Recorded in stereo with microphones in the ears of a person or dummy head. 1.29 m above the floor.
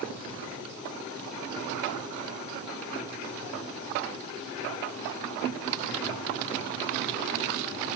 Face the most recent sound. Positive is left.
No sound to turn to.